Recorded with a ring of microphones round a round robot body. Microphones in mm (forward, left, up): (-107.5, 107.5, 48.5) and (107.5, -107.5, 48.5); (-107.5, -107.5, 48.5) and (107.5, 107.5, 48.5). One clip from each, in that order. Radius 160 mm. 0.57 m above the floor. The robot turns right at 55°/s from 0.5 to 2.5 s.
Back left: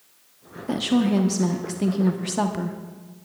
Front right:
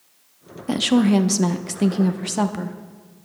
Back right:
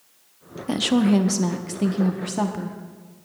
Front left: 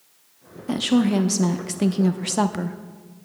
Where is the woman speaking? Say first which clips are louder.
Front right 4 dB, back right 1 dB; 70° right, 0.7 m; by 2.8 s 30° left, 0.7 m.